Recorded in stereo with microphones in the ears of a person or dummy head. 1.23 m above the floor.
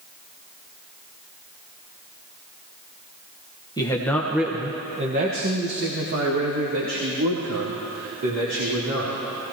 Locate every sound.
3.8 s a man speaking: 15° left (ahead or behind), 1.3 m; by 9.2 s 85° right, 4.5 m